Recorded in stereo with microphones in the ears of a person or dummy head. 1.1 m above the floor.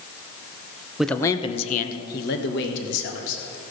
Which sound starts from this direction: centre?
A man speaking, at 1.0 s.